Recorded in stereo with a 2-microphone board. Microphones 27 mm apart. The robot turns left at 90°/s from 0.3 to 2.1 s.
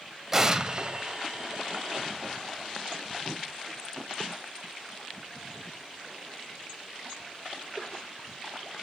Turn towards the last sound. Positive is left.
turn(degrees=175)